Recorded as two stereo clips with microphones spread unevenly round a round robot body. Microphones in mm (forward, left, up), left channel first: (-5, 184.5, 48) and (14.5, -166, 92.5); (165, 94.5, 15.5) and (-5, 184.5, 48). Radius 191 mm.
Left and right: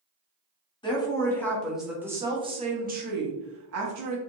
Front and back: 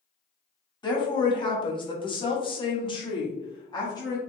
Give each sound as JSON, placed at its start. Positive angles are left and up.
{"t": 0.8, "sound": "a woman speaking", "azimuth_deg": 25, "distance_m": 1.7}